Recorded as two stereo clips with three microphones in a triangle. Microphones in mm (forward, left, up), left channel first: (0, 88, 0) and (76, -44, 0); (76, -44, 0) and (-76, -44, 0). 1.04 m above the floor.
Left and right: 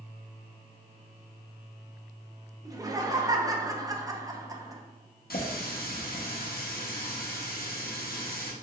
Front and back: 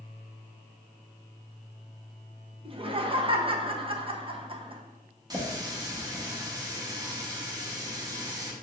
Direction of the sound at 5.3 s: 115° left.